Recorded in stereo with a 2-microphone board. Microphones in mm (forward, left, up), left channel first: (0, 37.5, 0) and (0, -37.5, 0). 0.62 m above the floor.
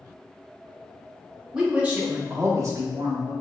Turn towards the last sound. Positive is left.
turn(degrees=-55)  # may be behind; listen again after turning